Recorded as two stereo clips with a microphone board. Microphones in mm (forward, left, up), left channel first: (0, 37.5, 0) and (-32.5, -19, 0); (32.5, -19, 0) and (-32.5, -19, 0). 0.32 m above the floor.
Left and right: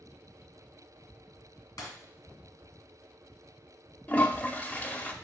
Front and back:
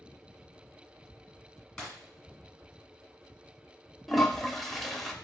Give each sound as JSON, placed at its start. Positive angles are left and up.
{"t": 1.8, "sound": "breaking glass", "azimuth_deg": 85, "distance_m": 1.9}
{"t": 4.1, "sound": "a toilet flushing", "azimuth_deg": 90, "distance_m": 0.6}